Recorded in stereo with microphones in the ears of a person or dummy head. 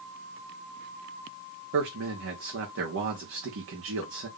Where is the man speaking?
65° right (ahead or behind), 1.5 m.